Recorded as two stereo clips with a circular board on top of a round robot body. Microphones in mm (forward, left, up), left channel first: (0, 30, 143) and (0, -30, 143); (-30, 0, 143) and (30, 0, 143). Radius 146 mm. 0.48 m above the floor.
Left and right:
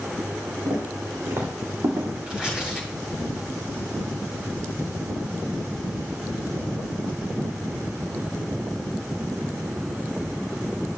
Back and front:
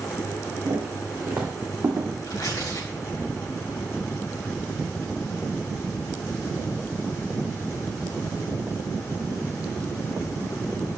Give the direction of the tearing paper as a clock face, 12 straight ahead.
6 o'clock.